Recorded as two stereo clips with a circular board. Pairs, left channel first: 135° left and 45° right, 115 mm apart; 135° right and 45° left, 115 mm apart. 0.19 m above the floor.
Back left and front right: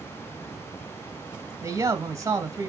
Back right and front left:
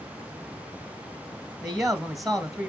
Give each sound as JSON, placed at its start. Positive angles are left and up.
{"t": 1.6, "sound": "a man speaking", "azimuth_deg": -45, "distance_m": 1.2}